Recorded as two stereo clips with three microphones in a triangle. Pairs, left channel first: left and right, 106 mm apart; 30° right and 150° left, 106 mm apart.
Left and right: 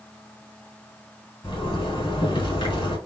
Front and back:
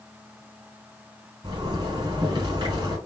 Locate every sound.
1.4 s a zipper: 125° left, 2 m